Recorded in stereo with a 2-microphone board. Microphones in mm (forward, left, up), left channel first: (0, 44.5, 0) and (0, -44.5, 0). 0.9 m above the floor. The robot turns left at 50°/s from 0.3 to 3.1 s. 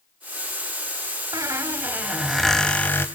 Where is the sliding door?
I don't hear a sliding door.